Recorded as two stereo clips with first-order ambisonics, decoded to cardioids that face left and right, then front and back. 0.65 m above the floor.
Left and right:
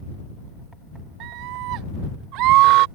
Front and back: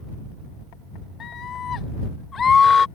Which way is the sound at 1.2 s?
60° right.